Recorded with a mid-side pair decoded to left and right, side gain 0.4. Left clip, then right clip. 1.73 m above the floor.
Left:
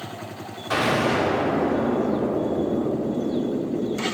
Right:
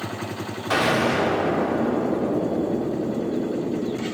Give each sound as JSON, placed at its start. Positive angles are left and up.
{"t": 0.7, "sound": "an explosion", "azimuth_deg": -45, "distance_m": 3.0}